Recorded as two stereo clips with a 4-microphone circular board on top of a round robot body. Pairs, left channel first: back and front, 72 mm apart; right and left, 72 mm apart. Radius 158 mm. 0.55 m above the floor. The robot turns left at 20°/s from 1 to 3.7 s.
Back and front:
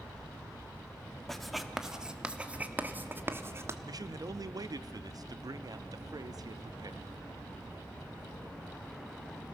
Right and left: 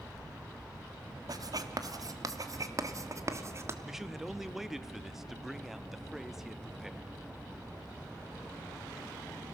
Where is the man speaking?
5° left, 1.0 m.